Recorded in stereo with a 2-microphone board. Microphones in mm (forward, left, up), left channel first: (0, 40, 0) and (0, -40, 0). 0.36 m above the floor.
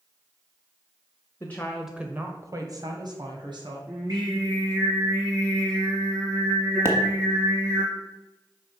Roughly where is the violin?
I don't hear a violin.